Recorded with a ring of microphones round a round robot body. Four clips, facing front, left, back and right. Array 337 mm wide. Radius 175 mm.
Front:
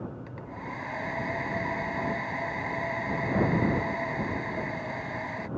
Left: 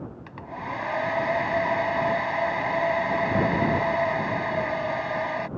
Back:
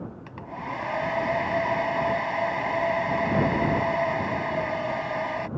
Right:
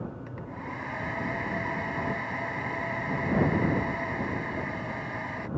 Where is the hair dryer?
125° left.